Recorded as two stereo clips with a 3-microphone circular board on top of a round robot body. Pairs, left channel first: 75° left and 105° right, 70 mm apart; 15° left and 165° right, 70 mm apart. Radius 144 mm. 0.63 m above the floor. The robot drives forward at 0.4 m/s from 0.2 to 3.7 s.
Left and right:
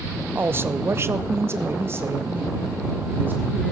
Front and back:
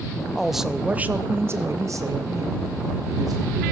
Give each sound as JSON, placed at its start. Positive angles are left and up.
{"t": 0.3, "sound": "a woman speaking", "azimuth_deg": -70, "distance_m": 0.6}